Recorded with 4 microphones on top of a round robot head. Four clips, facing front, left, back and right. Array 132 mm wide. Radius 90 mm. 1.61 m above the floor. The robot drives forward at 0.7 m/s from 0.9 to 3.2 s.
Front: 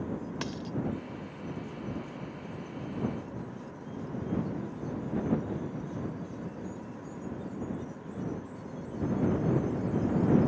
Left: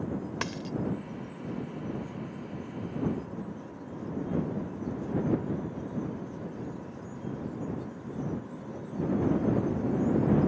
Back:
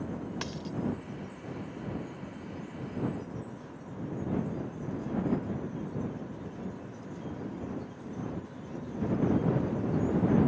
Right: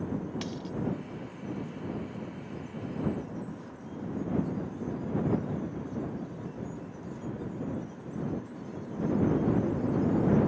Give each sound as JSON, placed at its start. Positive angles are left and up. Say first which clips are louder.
{"t": 0.4, "sound": "a dropped coin", "louder": "left 2 dB, front 1 dB", "azimuth_deg": 90}